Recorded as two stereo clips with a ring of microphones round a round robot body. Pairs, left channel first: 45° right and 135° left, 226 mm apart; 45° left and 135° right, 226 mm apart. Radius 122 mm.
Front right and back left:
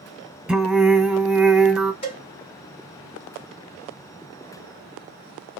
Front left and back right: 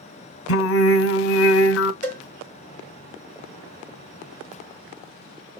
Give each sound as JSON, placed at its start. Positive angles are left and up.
{"t": 0.5, "sound": "singing", "azimuth_deg": 50, "distance_m": 0.8}
{"t": 2.0, "sound": "a cowbell", "azimuth_deg": -110, "distance_m": 2.0}